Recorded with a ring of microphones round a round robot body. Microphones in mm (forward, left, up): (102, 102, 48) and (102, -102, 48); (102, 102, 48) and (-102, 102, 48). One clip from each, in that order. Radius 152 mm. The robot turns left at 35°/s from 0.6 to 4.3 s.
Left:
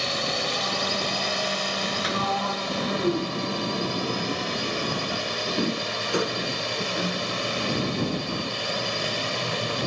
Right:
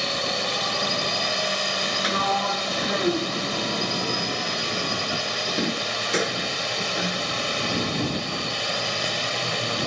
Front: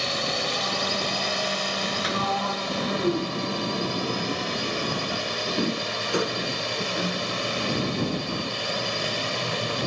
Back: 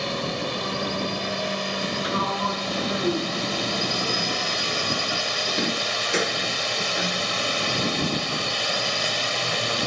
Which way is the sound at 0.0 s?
25° right.